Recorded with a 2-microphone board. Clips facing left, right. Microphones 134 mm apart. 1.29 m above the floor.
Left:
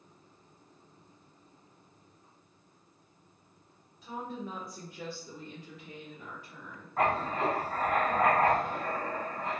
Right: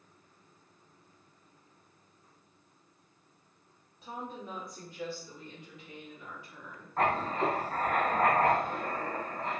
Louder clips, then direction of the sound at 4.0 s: Left 2 dB; 30° right (ahead or behind).